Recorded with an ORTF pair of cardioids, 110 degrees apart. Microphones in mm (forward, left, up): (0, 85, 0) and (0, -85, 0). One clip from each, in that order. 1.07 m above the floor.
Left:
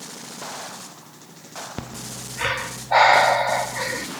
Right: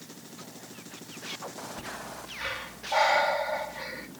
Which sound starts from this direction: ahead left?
Breathing, at 1.8 s.